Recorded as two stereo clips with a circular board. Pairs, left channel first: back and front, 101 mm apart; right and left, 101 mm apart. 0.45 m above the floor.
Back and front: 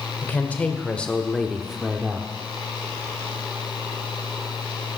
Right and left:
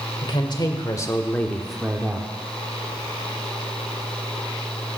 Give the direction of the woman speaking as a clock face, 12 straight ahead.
4 o'clock.